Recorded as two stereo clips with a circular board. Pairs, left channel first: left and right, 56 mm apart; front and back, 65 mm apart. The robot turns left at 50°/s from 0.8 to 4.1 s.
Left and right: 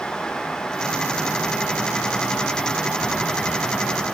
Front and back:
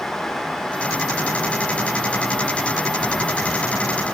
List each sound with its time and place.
Only background noise.